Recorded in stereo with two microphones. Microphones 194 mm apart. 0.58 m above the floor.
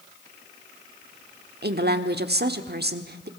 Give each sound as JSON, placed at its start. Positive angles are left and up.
{"t": 1.6, "sound": "a woman speaking", "side_deg": -55, "distance_m": 1.3}